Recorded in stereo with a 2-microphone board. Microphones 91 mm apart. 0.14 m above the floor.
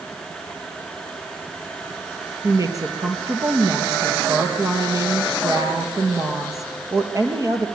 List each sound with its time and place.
2.4 s a woman speaking: 40° right (ahead or behind), 3.5 m